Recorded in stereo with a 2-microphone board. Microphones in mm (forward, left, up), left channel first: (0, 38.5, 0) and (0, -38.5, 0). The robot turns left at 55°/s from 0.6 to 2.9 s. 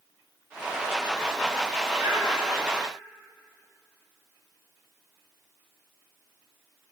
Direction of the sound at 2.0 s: 20° right (ahead or behind).